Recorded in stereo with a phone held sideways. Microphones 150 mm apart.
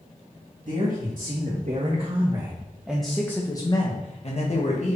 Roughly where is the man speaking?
Right.